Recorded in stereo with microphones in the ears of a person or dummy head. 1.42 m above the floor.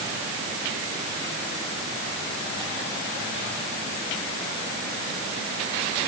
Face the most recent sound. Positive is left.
No sound to turn to.